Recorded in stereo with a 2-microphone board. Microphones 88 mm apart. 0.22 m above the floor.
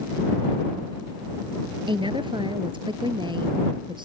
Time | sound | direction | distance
1.9 | a woman speaking | 70° right (ahead or behind) | ?